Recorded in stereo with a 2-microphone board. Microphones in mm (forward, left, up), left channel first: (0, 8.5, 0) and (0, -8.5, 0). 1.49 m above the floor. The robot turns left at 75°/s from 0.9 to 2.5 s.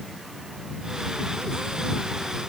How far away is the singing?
No singing in this recording.